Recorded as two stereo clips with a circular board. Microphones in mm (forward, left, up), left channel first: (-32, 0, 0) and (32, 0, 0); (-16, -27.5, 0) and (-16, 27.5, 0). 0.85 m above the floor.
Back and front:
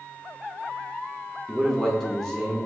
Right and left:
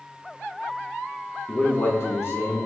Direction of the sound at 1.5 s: 110° right.